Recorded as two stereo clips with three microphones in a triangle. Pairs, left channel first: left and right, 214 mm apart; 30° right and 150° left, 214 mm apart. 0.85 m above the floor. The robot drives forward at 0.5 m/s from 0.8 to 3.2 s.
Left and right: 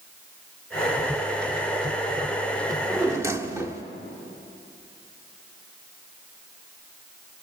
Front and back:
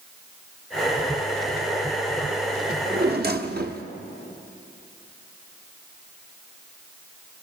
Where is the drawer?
160° right, 0.7 m; by 3.8 s 165° right, 1.0 m.